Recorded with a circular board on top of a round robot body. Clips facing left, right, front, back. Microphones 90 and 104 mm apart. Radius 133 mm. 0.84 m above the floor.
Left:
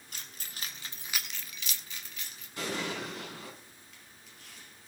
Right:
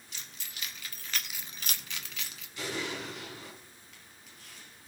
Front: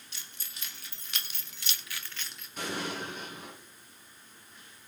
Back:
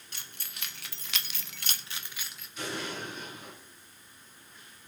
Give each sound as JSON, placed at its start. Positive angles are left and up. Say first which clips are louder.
{"t": 0.1, "sound": "keys jangling", "louder": "left 1 dB, back 3 dB", "azimuth_deg": 135, "distance_m": 2.0}
{"t": 2.6, "sound": "an explosion", "louder": "left 1 dB, front 1 dB", "azimuth_deg": 40, "distance_m": 7.0}